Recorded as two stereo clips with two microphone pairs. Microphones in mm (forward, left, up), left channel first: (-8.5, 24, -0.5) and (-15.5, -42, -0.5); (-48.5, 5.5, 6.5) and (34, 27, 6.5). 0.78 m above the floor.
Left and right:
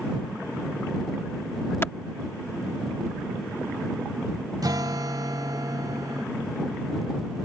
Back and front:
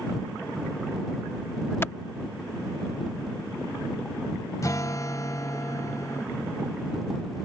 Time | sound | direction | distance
1.8 | a clap | 135° left | ?
4.6 | a guitar | 115° right | ?